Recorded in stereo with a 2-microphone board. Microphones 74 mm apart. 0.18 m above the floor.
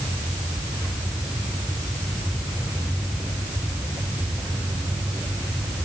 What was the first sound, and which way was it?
Only background noise.